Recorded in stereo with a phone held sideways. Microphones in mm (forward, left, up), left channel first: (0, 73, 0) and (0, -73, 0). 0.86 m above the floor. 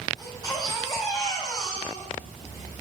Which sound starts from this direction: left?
A baby crying, at 0.2 s.